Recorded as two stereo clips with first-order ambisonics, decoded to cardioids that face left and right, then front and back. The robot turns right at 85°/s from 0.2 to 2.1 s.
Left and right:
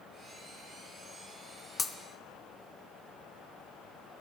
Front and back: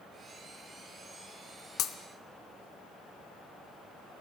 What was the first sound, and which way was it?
Breaking glass, 15° left.